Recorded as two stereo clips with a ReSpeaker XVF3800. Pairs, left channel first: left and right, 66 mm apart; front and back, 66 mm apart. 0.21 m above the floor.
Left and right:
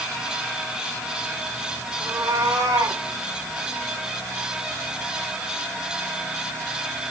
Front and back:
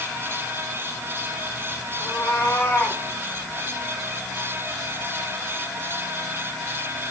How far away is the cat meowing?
About 5 m.